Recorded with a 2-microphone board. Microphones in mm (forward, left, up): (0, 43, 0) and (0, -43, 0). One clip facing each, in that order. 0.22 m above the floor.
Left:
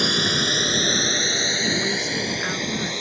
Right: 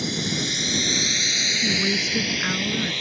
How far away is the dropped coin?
I don't hear a dropped coin.